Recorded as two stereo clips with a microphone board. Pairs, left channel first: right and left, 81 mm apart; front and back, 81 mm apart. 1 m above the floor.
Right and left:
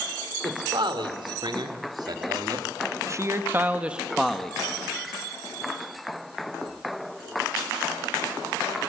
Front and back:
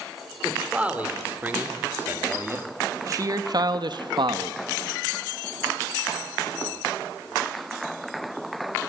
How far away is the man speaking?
About 4 m.